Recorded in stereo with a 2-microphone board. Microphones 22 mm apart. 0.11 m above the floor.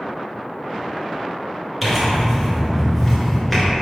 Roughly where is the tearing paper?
Centre.